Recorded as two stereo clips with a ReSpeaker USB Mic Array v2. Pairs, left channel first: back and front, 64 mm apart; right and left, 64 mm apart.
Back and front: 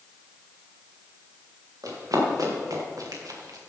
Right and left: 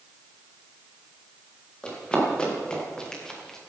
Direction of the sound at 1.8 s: 15° right.